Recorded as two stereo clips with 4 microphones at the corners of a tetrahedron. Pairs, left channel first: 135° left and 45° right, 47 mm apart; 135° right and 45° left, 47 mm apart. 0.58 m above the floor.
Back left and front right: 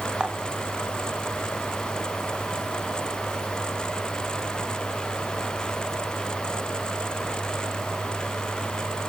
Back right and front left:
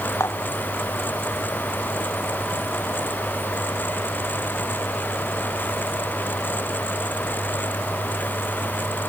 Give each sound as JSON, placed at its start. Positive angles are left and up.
{"t": 0.2, "sound": "dishes clattering", "azimuth_deg": -115}